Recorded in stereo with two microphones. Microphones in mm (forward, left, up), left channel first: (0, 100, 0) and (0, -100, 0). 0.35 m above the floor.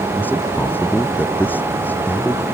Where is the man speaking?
10° left (ahead or behind).